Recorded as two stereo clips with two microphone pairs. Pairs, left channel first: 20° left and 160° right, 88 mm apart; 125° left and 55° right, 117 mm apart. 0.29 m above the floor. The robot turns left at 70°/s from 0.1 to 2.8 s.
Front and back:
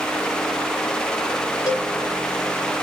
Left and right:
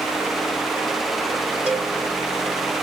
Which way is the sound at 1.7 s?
20° left.